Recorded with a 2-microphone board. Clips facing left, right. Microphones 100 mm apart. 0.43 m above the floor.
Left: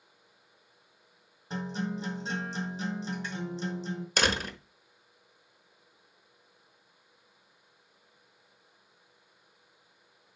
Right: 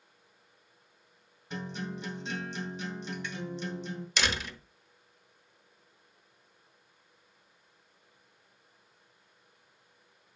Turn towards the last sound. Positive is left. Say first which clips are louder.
# left 4 dB
turn(degrees=45)  # may be behind; listen again after turning